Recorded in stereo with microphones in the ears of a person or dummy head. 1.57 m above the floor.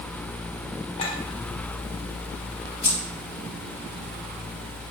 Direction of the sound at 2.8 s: 65° left (ahead or behind).